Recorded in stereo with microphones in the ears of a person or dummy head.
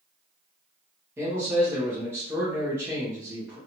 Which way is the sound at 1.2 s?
10° right (ahead or behind).